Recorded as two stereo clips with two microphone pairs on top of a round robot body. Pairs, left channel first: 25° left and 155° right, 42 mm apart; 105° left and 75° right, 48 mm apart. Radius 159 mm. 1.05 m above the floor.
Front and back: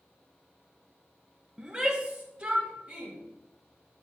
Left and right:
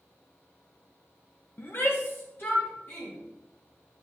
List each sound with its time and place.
1.6 s a shout: 140° left, 1.2 m; by 3.1 s 145° left, 3 m